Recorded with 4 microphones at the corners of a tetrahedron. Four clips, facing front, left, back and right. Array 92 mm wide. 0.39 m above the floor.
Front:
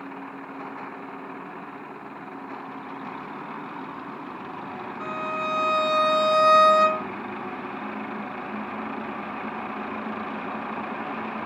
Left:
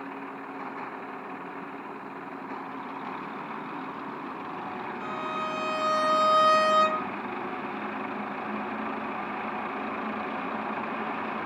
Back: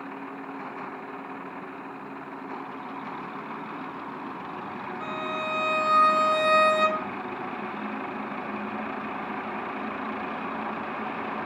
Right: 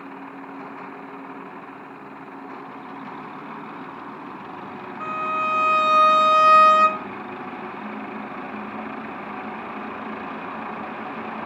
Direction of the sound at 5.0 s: 80° right.